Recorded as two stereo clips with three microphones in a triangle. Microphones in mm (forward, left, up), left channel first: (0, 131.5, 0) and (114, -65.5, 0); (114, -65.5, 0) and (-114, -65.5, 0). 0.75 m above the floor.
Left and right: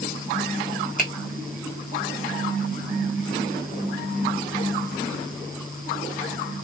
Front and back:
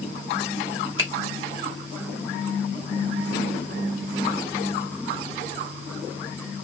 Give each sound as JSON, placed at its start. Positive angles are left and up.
{"t": 1.0, "sound": "a finger snap", "azimuth_deg": 170, "distance_m": 1.3}